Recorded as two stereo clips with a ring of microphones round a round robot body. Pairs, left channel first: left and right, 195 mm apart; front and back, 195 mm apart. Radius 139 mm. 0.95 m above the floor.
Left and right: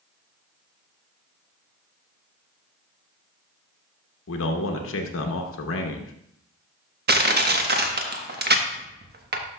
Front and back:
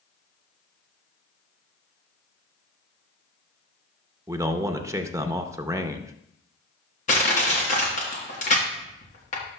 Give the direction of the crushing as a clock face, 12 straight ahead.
2 o'clock.